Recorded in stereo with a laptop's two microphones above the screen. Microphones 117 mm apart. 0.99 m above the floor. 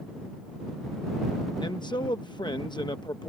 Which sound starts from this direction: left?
A man speaking, at 1.6 s.